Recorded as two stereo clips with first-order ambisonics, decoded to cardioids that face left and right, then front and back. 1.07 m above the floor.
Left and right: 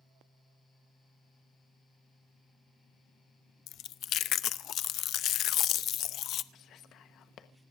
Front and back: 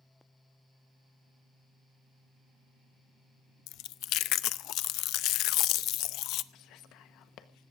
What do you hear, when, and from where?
3.7 s chewing: 40° left, 0.6 m
6.5 s whispering: 40° left, 1.1 m